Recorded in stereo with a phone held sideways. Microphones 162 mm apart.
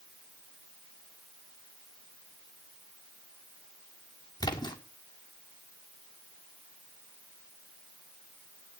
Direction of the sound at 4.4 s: 25° left (ahead or behind).